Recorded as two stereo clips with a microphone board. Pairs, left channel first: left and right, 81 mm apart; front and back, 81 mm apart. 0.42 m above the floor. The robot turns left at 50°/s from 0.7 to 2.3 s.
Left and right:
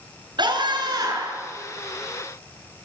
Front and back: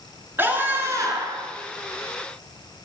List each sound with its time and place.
0.4 s a scream: 115° right, 7 m; by 1.4 s 155° right, 7 m